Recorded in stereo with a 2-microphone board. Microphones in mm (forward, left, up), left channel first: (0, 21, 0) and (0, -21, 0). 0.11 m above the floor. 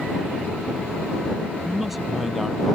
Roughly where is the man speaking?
Centre.